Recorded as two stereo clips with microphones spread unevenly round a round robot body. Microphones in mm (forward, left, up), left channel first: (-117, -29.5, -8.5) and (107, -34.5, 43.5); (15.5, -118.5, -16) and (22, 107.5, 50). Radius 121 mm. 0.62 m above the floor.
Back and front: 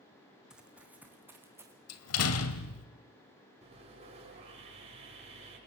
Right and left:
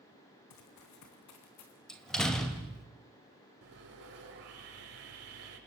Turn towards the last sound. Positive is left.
turn(degrees=65)